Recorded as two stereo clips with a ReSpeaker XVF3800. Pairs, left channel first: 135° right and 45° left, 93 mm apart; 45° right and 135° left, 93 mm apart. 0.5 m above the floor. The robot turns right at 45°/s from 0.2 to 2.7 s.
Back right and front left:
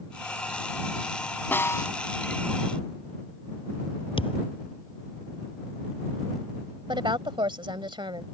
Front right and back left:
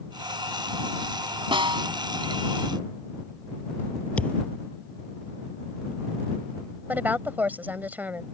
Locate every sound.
1.5 s a snare drum: 155° left; by 1.9 s 175° left
4.2 s a thud: 120° right
6.9 s a woman speaking: 65° left